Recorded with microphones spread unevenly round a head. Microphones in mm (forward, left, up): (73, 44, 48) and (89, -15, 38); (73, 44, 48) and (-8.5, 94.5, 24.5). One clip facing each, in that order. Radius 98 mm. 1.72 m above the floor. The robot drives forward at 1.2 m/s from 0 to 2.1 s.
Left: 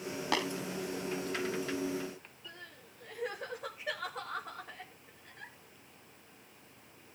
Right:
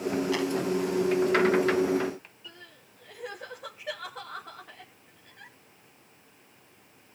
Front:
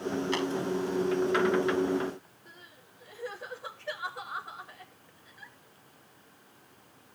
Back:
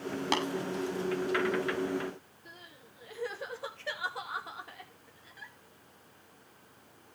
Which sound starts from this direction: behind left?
Tapping, at 0.3 s.